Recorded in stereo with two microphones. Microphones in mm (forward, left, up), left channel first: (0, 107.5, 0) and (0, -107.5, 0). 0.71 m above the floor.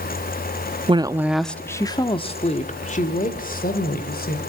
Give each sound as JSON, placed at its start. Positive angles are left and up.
{"t": 0.9, "sound": "a woman speaking", "side_deg": -25, "distance_m": 0.8}